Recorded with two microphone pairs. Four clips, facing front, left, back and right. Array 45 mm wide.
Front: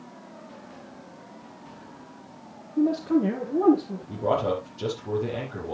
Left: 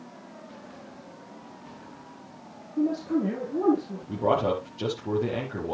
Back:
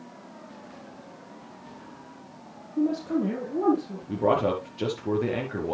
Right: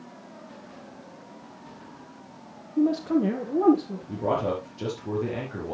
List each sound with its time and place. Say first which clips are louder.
2.8 s a man speaking: right 3 dB, front 3 dB; 95° right, 4.5 m; by 4.0 s 70° right, 3.5 m
4.1 s a man speaking: left 2 dB, back 2 dB; 175° left, 4.5 m